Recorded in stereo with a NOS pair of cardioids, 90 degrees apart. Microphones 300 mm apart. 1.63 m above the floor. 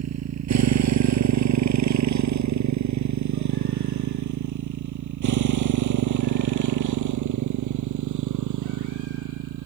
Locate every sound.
0.0 s a motorcycle: 60° right; by 9.7 s 80° right